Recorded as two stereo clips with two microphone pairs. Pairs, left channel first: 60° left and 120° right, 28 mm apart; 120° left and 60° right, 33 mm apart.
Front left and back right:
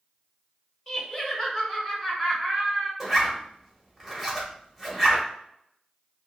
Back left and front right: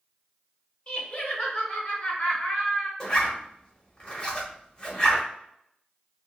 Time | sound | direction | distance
0.9 | laughter | 165° left | 1.1 m
3.0 | a zipper | 175° left | 1.1 m